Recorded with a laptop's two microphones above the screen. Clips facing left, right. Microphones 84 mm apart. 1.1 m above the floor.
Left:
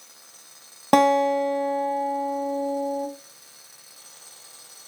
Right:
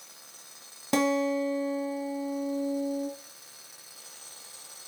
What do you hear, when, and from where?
0.9 s a guitar: 60° left (ahead or behind), 1.1 m